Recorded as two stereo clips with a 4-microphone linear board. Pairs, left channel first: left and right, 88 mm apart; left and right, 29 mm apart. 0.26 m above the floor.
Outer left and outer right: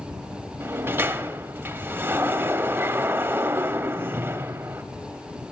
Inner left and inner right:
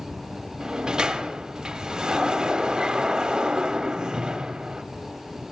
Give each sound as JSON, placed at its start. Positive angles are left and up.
{"t": 0.6, "sound": "a sliding door", "side_deg": -25, "distance_m": 0.6}